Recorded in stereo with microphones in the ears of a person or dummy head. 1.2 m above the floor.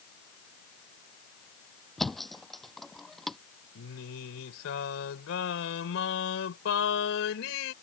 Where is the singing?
75° left (ahead or behind).